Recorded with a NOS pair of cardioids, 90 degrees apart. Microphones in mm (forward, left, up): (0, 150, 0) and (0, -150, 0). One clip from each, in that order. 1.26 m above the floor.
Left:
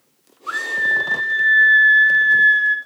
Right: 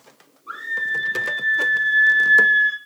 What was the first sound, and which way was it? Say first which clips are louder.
A scream: left 5 dB; 65° left.